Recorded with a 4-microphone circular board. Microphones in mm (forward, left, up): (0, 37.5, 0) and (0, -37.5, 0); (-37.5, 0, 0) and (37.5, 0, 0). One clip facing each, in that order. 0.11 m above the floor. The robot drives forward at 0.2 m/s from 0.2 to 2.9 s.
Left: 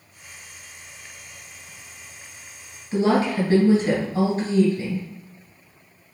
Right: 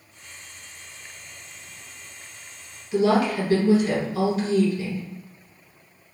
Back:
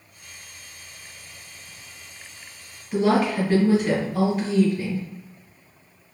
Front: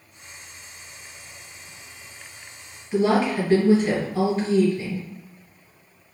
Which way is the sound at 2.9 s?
95° left.